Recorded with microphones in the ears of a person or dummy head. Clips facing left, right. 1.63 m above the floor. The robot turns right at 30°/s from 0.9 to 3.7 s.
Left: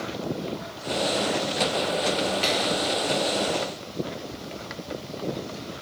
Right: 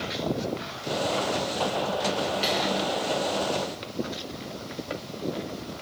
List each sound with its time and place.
2.4 s a finger snap: centre (ahead or behind), 6 m; by 2.7 s 10° right (ahead or behind), 6 m